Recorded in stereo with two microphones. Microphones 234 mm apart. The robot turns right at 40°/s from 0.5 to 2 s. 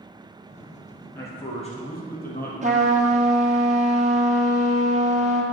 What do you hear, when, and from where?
1.1 s a man speaking: 10° left, 2.5 m; by 2.5 s 45° left, 2.5 m
2.6 s a trumpet: 30° right (ahead or behind), 1.3 m